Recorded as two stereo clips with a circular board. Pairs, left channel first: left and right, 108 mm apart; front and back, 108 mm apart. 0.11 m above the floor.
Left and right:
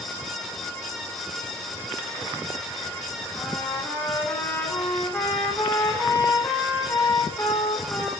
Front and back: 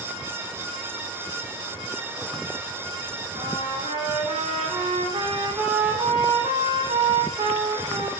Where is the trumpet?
150° left, 3 m.